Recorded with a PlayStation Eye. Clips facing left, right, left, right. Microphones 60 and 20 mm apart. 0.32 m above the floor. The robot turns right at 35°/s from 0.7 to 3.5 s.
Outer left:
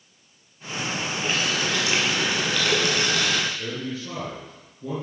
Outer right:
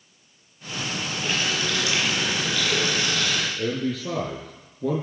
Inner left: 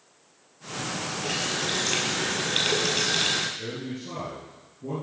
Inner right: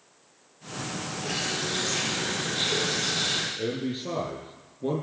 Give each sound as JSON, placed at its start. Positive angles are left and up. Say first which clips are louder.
{"t": 1.2, "sound": "a running tap", "louder": "outer left 1 dB, inner left 1 dB", "azimuth_deg": 0, "distance_m": 5.5}
{"t": 3.6, "sound": "a man speaking", "louder": "outer right 5 dB, inner right 4 dB", "side_deg": -75, "distance_m": 5.5}